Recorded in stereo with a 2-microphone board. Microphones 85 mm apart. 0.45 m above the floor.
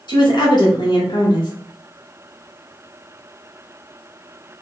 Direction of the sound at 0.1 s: 60° left (ahead or behind).